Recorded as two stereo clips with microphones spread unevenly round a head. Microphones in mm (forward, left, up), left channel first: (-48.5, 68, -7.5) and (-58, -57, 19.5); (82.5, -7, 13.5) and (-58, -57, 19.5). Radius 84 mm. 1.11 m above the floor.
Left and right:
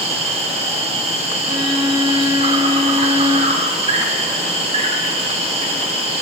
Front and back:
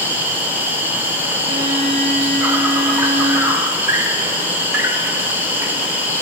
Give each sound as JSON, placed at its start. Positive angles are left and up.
{"t": 0.0, "sound": "an insect", "azimuth_deg": -85, "distance_m": 0.9}
{"t": 1.4, "sound": "a violin", "azimuth_deg": -150, "distance_m": 1.2}